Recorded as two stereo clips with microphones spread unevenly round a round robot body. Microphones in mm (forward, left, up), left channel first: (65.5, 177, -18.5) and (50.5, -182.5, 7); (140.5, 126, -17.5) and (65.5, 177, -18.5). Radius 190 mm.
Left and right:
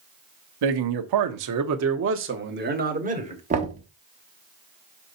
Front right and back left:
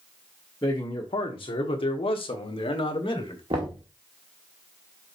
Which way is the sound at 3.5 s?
160° right.